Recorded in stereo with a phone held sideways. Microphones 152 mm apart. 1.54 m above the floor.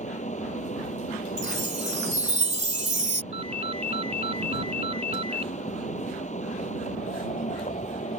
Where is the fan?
50° left (ahead or behind).